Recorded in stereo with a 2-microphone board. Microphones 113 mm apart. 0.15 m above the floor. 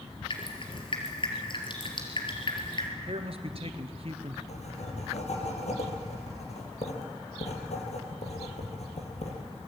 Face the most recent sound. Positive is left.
turn(degrees=75)  # may be behind; listen again after turning